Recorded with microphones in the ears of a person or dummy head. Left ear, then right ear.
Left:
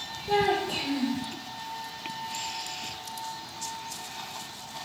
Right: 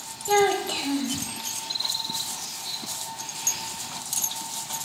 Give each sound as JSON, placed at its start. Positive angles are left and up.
{"t": 0.3, "sound": "a child speaking", "side_deg": -45, "distance_m": 0.8}